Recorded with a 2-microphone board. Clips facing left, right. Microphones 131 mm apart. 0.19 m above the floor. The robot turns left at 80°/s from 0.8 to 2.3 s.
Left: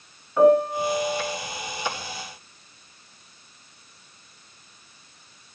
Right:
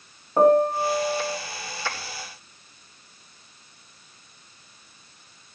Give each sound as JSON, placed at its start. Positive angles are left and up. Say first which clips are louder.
{"t": 0.4, "sound": "a piano", "louder": "even", "azimuth_deg": -55, "distance_m": 1.2}